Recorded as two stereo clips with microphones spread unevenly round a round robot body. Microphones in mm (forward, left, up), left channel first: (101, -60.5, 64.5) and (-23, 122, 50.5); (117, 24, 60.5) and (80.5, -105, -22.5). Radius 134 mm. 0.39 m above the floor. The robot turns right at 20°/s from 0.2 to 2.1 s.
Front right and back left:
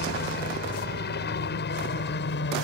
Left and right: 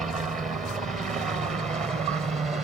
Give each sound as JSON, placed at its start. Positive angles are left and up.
{"t": 0.0, "sound": "a helicopter", "azimuth_deg": -55}